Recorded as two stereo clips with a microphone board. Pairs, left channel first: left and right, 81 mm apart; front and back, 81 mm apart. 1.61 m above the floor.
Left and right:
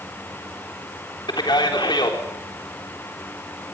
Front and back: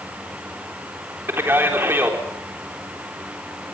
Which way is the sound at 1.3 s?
115° left.